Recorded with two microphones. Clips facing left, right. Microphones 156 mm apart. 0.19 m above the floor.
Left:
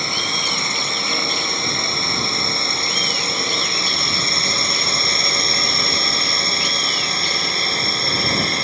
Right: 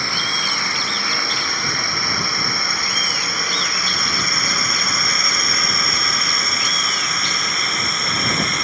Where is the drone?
20° left (ahead or behind); by 8.7 s 30° left (ahead or behind).